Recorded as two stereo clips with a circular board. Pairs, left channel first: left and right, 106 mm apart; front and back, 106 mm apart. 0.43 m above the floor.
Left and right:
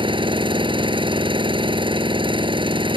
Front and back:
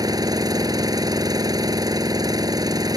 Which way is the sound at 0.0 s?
125° right.